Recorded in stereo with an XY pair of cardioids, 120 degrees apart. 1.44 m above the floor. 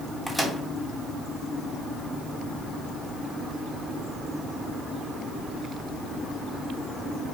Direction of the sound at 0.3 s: 5° right.